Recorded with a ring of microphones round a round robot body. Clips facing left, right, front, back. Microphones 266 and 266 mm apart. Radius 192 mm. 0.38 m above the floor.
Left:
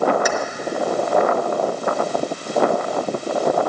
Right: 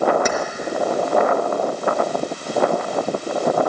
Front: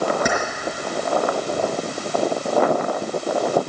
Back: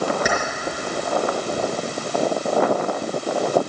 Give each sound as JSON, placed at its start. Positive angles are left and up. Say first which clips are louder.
{"t": 0.2, "sound": "keys jangling", "louder": "even, front 1 dB", "azimuth_deg": -20, "distance_m": 4.0}